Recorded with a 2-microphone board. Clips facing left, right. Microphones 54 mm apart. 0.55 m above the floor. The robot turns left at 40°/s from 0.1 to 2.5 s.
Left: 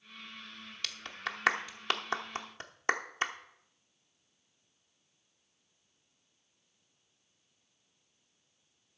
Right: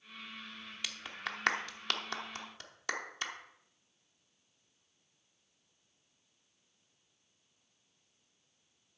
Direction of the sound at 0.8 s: 15° right (ahead or behind).